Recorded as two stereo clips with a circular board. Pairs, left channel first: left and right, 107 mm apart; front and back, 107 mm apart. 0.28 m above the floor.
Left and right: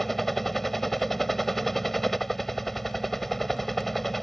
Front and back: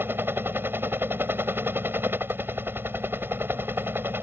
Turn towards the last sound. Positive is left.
turn(degrees=175)